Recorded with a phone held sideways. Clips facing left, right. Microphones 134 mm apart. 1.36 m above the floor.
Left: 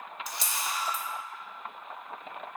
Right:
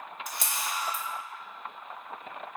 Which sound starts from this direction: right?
A camera shutter, at 0.3 s.